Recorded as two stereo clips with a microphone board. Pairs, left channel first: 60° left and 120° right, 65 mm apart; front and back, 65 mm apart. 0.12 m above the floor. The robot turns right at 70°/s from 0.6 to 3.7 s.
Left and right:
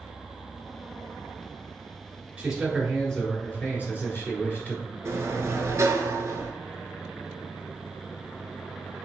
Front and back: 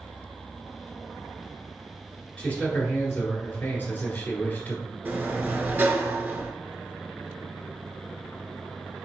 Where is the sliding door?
135° right, 0.8 m.